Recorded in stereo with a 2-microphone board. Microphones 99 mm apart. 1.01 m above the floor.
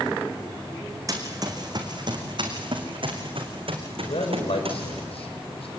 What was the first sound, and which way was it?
Running footsteps, 35° right (ahead or behind).